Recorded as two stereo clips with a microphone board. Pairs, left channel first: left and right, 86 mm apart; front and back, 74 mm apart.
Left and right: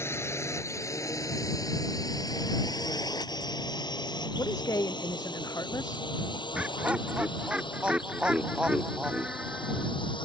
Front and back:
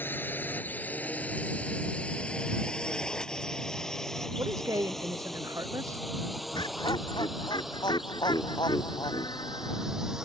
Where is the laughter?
15° right.